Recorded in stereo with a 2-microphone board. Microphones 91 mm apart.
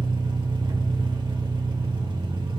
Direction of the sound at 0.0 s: 60° right (ahead or behind).